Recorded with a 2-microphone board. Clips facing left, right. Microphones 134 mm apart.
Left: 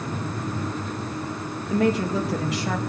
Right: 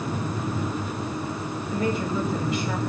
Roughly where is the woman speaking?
Left.